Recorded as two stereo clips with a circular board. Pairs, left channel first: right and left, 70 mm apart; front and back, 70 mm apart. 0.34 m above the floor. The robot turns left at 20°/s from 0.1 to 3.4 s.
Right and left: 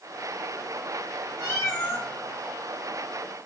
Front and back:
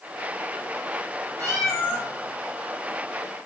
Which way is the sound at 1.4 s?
45° right.